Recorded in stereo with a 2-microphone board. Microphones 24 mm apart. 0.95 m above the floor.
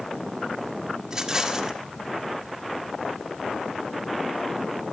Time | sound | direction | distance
1.1 | a rattle | 25° right (ahead or behind) | 2 m